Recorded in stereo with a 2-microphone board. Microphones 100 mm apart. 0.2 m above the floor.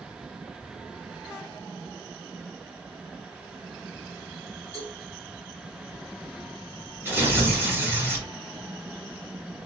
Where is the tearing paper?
20° right (ahead or behind), 1.9 m.